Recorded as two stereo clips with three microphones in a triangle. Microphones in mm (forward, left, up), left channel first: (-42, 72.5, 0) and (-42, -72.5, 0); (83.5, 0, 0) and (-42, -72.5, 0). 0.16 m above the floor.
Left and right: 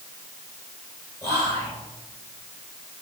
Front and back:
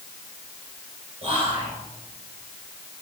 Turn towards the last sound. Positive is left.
turn(degrees=160)